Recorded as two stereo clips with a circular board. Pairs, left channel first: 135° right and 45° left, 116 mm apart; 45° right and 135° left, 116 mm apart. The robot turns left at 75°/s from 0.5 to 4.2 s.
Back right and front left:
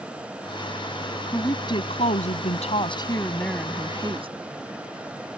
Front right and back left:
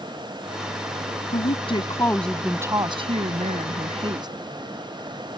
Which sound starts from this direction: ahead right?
A woman speaking, at 1.3 s.